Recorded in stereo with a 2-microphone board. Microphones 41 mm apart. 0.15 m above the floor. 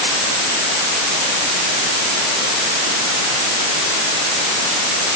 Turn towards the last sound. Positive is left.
No sound to turn to.